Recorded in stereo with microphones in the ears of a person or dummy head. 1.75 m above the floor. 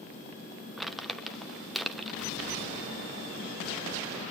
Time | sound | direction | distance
0.8 | crumpling | 5° right (ahead or behind) | 1.3 m